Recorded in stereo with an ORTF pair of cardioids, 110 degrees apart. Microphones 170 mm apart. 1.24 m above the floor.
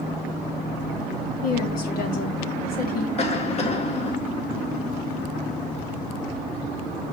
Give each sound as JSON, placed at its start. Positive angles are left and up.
{"t": 1.4, "sound": "a woman speaking", "azimuth_deg": 60, "distance_m": 3.0}
{"t": 3.2, "sound": "a cough", "azimuth_deg": 40, "distance_m": 3.0}